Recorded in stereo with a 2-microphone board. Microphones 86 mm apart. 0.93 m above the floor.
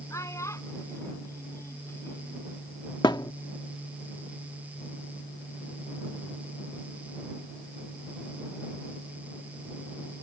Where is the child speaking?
40° left (ahead or behind); by 2.5 s 30° left (ahead or behind).